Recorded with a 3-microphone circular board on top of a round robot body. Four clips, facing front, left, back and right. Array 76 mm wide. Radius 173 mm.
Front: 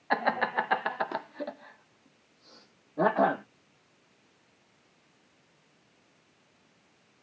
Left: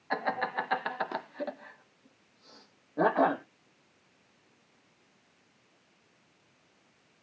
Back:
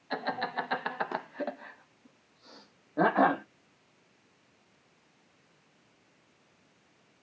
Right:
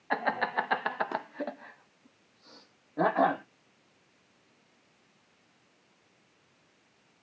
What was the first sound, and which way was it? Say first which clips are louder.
Laughter: right 2 dB, front 6 dB; 20° right.